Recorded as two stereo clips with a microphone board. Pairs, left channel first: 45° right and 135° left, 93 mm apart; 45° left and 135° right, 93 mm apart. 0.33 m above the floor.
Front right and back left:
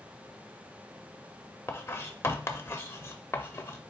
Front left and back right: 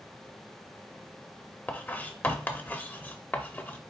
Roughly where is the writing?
Ahead.